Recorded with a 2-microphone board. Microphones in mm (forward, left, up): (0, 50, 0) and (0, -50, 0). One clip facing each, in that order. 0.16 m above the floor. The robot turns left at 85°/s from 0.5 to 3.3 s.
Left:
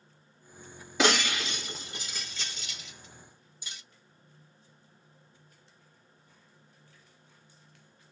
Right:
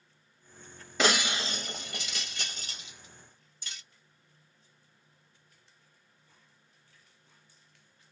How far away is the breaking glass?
About 1.6 m.